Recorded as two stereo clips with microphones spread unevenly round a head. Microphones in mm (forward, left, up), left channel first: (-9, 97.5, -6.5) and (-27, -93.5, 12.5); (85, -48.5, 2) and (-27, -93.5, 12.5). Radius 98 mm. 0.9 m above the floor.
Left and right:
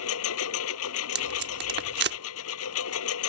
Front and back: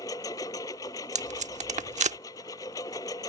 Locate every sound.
0.0 s a lawn mower: 95° left
1.1 s tape being pulled: 135° right